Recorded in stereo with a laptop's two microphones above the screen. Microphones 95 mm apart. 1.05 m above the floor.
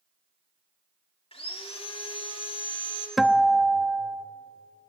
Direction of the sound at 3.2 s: Centre (ahead or behind).